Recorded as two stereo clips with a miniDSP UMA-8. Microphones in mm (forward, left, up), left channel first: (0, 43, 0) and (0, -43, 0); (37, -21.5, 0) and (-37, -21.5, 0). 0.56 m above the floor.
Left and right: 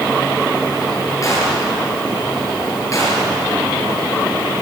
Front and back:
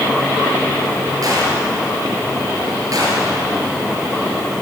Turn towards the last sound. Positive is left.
turn(degrees=140)